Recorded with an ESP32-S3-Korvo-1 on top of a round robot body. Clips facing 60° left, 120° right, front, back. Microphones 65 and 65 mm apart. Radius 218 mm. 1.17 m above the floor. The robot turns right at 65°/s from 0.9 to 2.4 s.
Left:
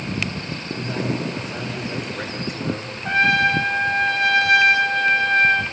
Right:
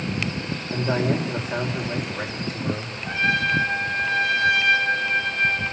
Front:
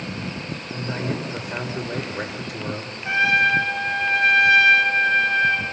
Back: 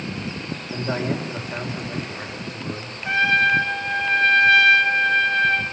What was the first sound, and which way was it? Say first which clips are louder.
A man speaking: right 3 dB, back 3 dB; 110° right.